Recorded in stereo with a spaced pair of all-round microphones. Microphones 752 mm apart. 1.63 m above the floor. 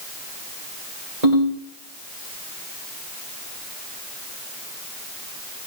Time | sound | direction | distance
1.2 | a ringtone | 60° right (ahead or behind) | 4.5 m